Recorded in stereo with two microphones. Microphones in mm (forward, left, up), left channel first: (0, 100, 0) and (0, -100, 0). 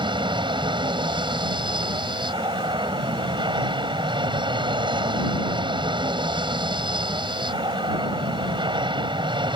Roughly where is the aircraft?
Right.